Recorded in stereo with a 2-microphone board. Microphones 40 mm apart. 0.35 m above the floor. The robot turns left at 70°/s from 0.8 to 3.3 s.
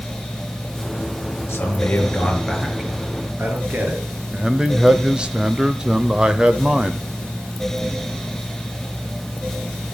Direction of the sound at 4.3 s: 20° right (ahead or behind).